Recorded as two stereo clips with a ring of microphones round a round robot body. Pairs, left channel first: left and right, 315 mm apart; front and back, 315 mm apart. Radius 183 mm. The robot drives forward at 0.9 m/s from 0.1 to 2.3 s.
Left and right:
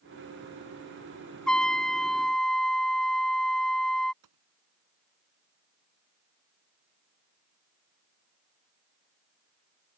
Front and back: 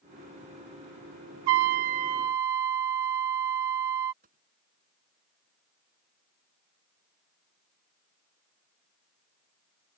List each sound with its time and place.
1.5 s a trumpet: straight behind
4.2 s a gunshot: 115° right